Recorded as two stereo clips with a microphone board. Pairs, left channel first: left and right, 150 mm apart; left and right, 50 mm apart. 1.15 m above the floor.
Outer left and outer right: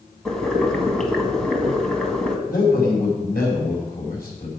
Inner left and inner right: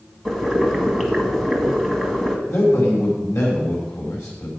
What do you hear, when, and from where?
0.2 s boiling: 5° left (ahead or behind), 1.8 m
2.5 s a man speaking: 80° left, 5 m